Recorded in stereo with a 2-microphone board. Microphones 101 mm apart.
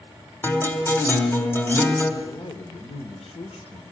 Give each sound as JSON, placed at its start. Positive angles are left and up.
{"t": 0.4, "sound": "a guitar", "side_deg": 25, "distance_m": 2.5}
{"t": 2.2, "sound": "a man speaking", "side_deg": 70, "distance_m": 2.0}